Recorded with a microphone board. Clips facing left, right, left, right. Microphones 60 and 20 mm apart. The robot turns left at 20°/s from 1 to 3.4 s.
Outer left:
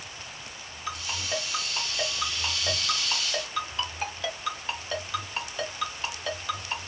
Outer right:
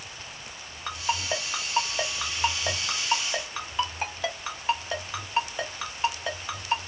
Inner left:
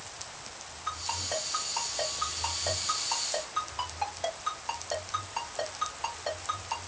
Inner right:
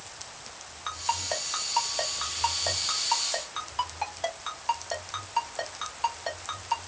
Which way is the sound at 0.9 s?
60° right (ahead or behind).